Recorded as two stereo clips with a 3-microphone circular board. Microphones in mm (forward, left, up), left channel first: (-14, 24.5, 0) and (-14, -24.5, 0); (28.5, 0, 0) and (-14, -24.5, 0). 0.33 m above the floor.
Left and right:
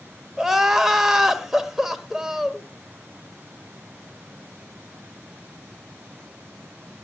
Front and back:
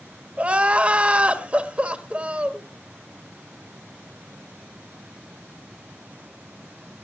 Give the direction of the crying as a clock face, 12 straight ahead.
5 o'clock.